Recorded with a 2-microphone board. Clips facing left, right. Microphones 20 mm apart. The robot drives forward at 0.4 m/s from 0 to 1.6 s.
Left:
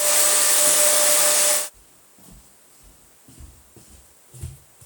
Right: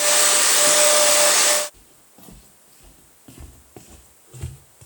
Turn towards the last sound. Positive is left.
turn(degrees=-20)  # may be behind; listen again after turning